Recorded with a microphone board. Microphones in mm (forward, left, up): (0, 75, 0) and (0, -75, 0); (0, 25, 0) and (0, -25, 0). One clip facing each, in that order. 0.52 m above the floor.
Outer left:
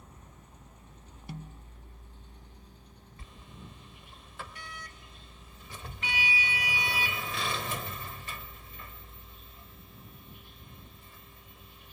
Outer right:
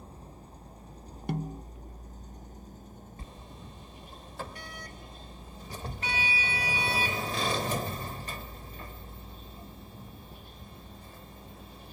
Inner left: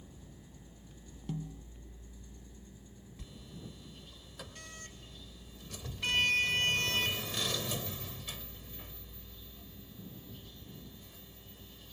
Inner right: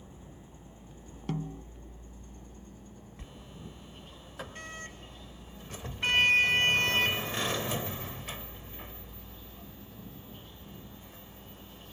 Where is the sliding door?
40° right (ahead or behind).